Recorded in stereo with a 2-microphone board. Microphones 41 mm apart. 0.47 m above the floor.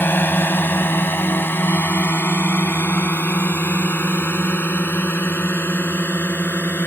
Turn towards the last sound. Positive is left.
turn(degrees=55)  # may be behind; listen again after turning